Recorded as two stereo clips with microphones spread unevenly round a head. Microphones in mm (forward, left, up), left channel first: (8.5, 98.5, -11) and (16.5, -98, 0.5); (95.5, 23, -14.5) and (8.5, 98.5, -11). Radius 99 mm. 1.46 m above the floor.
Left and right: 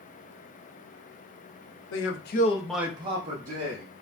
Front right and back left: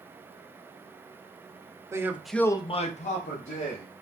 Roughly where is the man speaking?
Left.